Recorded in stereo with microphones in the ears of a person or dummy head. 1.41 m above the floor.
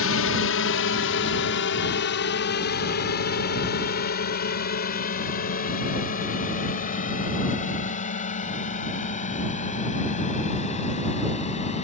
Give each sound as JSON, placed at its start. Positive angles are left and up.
{"t": 0.0, "sound": "a drone", "side_deg": 70}